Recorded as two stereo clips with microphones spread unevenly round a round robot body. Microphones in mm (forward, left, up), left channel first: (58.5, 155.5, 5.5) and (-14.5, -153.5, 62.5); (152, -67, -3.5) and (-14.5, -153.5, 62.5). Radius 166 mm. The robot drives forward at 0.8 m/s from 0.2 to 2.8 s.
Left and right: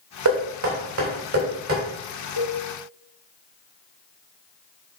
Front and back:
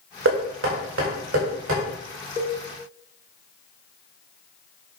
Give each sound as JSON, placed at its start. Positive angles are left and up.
{"t": 0.2, "sound": "knocking", "azimuth_deg": -145, "distance_m": 2.5}
{"t": 2.4, "sound": "a cowbell", "azimuth_deg": -75, "distance_m": 2.5}